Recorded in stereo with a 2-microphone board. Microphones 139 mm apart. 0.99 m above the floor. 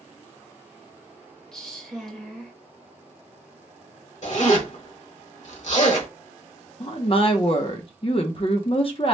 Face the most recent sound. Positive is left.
turn(degrees=40)  # may be behind; listen again after turning